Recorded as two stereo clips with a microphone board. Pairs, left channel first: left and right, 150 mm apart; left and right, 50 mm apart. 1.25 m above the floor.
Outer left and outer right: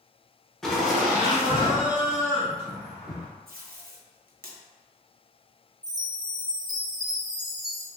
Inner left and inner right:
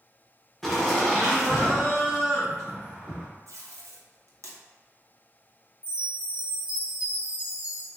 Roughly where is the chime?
Right.